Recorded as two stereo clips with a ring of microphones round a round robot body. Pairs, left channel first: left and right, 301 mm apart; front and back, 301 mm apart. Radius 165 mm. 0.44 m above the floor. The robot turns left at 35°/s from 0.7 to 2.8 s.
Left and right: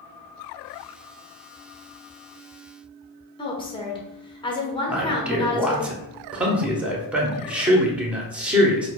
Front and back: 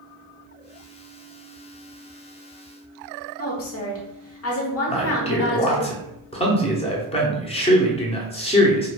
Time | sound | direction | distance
3.4 | a woman speaking | 20° left | 1.1 m
4.9 | a man speaking | 10° right | 1.0 m